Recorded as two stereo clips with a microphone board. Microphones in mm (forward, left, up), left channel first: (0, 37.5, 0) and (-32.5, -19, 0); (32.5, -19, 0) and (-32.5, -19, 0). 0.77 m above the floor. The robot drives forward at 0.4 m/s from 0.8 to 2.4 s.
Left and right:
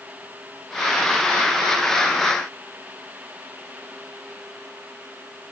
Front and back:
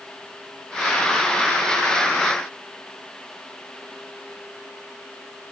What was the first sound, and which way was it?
Only background noise.